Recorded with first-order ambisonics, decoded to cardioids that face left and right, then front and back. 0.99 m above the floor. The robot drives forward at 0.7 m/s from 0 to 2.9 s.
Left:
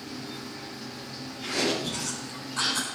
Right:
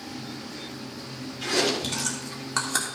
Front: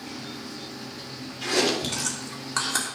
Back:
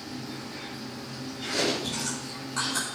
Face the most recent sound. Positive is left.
turn(degrees=-60)